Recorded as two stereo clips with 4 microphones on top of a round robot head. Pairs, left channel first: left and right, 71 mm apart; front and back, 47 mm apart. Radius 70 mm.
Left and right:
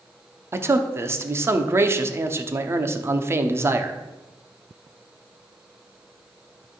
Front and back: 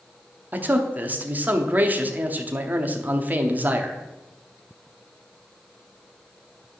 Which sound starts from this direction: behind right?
A man speaking, at 0.5 s.